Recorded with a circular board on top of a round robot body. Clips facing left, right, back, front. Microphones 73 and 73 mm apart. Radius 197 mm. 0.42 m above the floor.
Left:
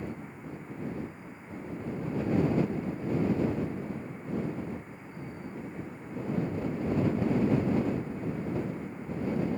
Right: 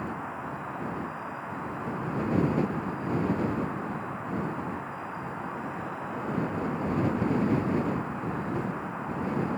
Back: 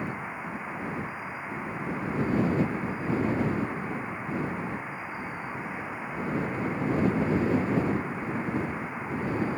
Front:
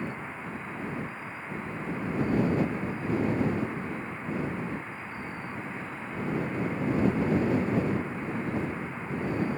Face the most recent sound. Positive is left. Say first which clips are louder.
# right 6 dB, back 2 dB
turn(degrees=-105)